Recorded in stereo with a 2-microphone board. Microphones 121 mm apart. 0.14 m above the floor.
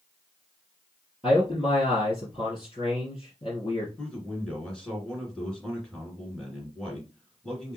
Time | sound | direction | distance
1.2 | a man speaking | 50° left (ahead or behind) | 2.5 m
4.0 | a man speaking | 5° left (ahead or behind) | 1.9 m